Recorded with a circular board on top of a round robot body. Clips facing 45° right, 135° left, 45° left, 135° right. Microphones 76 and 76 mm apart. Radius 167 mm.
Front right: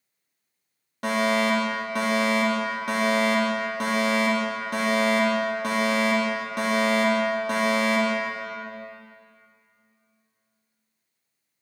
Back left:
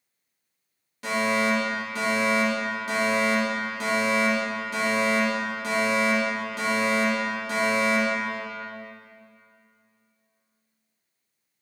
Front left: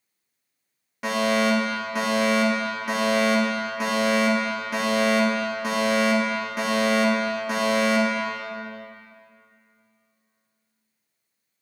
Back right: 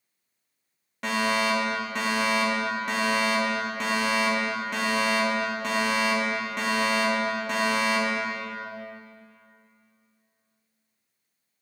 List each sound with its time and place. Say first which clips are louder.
1.0 s a fire alarm: front right 2 dB, front left 3 dB; 35° right, 2.5 m